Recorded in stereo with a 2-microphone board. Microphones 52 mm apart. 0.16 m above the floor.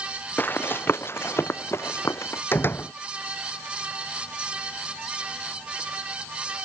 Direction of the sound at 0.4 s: 35° left (ahead or behind).